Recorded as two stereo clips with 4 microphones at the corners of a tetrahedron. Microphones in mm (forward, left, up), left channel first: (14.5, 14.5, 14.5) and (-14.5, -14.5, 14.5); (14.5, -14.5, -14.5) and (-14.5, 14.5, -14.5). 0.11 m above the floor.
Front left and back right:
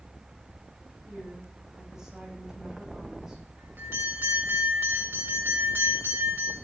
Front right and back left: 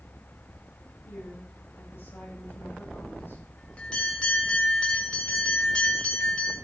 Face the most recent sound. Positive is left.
turn(degrees=-115)